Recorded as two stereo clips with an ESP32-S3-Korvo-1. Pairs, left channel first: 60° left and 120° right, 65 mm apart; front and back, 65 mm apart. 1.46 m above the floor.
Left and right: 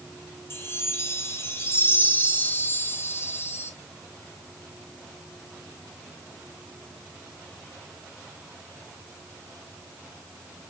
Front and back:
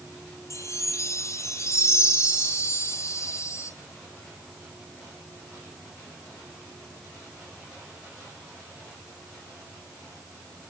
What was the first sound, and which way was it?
A chime, 20° left.